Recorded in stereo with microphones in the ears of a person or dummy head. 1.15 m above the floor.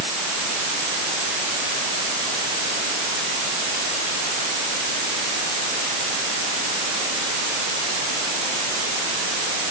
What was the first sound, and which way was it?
Only background noise.